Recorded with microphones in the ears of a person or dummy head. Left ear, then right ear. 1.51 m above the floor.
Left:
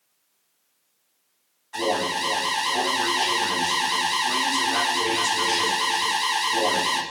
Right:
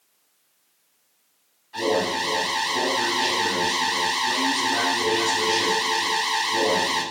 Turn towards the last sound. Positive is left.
turn(degrees=35)  # may be behind; listen again after turning